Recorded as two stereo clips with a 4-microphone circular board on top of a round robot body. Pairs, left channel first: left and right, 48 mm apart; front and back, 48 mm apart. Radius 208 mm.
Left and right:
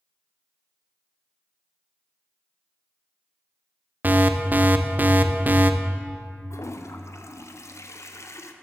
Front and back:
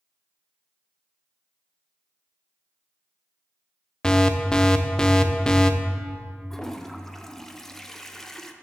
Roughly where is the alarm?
Ahead right.